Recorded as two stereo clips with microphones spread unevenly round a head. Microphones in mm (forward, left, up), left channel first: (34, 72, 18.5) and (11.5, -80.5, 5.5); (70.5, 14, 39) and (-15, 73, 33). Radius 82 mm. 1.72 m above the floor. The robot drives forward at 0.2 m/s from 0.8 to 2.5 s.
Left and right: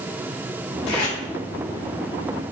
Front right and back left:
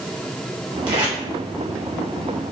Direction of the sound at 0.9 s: 100° left.